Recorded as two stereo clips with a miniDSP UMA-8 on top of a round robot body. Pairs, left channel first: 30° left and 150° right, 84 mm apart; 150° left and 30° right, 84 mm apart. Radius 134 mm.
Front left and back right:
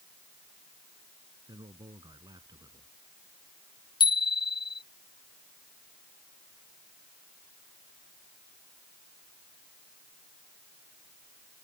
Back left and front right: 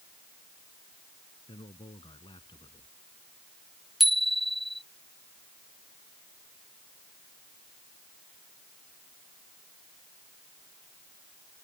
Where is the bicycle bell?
60° left.